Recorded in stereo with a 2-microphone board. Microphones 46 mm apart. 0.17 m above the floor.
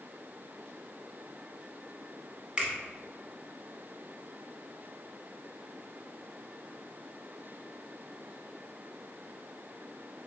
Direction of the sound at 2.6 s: 20° right (ahead or behind).